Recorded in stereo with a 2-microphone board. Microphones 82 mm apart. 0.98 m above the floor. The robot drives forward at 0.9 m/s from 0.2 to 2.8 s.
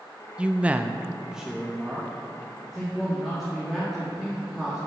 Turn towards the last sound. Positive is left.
turn(degrees=-5)  # may be behind; listen again after turning